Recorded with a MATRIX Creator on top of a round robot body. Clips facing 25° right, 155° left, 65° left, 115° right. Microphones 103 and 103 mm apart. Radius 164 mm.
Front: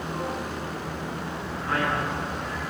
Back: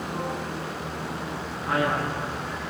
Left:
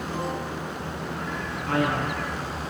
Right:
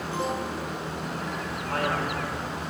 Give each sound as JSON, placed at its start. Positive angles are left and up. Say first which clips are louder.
{"t": 1.6, "sound": "a man speaking", "louder": "back 2 dB, left 3 dB", "azimuth_deg": 85, "distance_m": 9.0}